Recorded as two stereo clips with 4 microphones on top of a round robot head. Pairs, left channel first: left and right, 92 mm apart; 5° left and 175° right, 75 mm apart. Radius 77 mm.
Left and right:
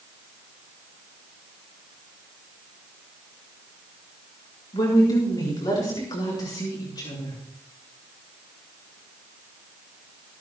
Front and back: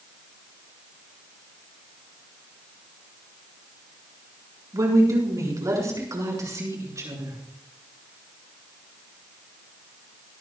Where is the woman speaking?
140° left, 6 m.